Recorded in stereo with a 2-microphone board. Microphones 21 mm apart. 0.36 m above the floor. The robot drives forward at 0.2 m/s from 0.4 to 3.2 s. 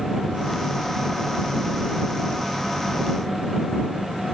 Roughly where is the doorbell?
No doorbell in this recording.